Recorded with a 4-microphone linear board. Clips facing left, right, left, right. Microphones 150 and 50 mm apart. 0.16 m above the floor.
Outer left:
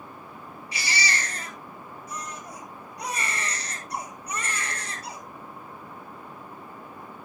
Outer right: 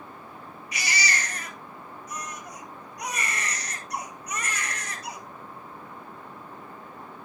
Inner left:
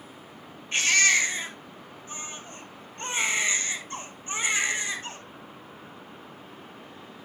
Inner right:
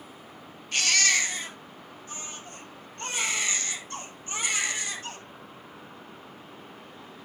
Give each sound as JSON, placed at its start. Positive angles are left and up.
{"t": 0.7, "sound": "a baby crying", "side_deg": 30, "distance_m": 8.0}